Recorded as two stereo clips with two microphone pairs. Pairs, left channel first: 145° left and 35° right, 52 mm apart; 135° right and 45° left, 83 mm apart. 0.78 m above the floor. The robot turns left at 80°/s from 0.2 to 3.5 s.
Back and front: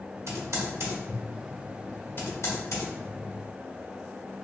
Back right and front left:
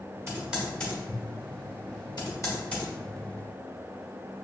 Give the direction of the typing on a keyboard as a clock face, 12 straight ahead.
12 o'clock.